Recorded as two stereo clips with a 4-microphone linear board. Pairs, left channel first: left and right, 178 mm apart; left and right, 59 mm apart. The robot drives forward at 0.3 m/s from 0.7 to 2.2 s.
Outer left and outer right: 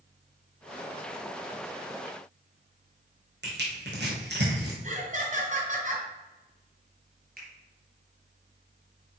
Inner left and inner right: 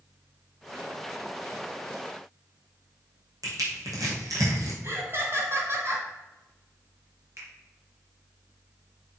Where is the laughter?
45° right (ahead or behind), 2.5 m.